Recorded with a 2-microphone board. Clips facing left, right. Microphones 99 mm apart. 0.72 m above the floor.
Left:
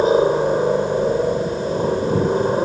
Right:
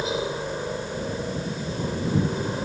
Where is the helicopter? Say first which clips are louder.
Left 13 dB; 45° left (ahead or behind).